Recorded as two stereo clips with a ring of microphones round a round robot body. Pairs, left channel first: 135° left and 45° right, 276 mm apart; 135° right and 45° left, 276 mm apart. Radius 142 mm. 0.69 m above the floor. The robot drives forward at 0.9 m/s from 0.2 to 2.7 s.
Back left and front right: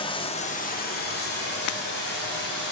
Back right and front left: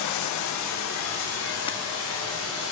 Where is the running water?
155° right, 0.7 m; by 2.7 s 175° right, 3 m.